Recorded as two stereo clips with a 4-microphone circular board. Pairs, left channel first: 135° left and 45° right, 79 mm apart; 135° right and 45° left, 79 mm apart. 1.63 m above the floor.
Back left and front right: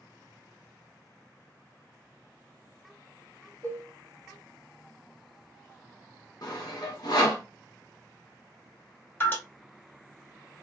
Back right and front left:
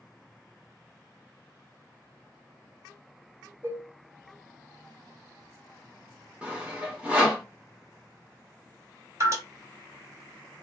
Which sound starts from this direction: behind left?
Sawing, at 6.4 s.